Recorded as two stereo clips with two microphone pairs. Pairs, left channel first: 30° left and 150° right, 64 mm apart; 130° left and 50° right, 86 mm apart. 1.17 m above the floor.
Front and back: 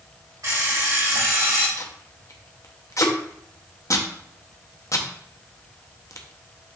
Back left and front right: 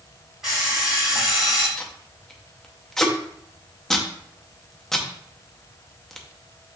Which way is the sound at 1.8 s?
50° left.